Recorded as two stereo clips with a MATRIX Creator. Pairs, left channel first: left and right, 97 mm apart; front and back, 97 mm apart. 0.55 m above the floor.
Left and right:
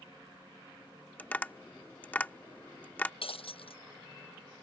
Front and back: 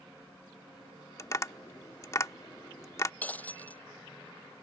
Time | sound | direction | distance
1.2 | tapping | 25° left | ?
3.2 | breaking glass | 75° left | ?